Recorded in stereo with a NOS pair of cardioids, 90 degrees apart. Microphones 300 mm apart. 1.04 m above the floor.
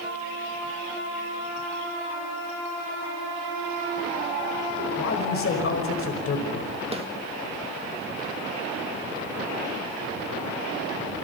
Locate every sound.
5.0 s a man speaking: 45° left, 5.5 m
6.9 s a snare drum: 20° right, 3 m